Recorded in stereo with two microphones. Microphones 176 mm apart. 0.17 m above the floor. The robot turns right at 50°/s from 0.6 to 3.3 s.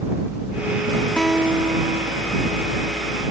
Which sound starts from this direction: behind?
A guitar, at 1.2 s.